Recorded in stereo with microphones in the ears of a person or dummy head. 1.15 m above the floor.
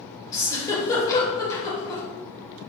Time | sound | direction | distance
0.3 | a giggle | 20° left (ahead or behind) | 2.5 m